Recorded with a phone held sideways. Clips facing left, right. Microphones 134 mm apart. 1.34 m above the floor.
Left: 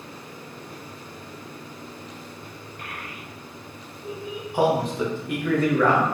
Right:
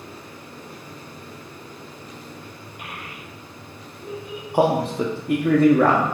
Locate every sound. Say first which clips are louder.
2.8 s a child speaking: right 1 dB; 10° right (ahead or behind), 0.8 m; by 4.4 s 35° right (ahead or behind), 0.9 m
4.5 s a man speaking: right 2 dB; 35° right (ahead or behind), 0.5 m